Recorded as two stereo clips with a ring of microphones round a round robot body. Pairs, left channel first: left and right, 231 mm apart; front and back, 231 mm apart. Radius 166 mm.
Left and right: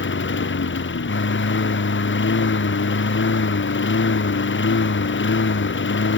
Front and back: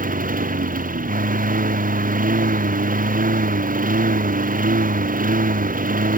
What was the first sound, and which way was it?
A lawn mower, 125° left.